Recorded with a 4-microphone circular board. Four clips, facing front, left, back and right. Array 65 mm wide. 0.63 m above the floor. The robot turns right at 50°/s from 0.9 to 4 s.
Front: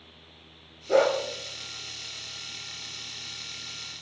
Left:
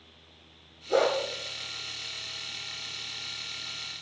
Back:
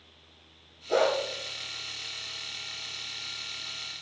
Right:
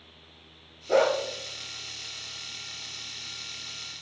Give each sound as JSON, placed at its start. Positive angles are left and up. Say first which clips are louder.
{"t": 0.9, "sound": "a dog barking", "louder": "right 2 dB, front 3 dB", "azimuth_deg": -45, "distance_m": 5.5}